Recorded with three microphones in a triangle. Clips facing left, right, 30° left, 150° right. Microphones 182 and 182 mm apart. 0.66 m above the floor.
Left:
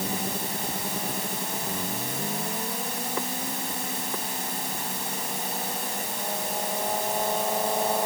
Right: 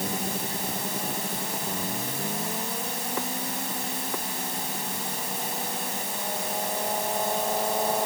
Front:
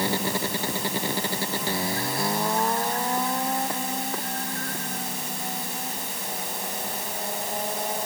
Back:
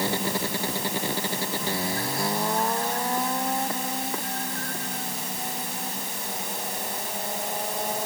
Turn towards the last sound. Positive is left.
No sound to turn to.